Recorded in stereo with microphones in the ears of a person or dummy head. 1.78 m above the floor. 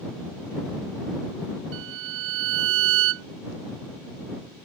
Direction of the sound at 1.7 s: 65° right (ahead or behind).